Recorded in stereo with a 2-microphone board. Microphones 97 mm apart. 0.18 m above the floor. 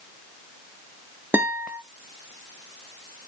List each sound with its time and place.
1.3 s a guitar: 20° right (ahead or behind), 1.3 m